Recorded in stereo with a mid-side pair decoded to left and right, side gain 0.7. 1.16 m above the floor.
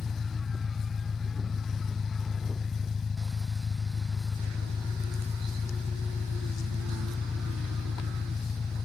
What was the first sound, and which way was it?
An engine running, 25° left.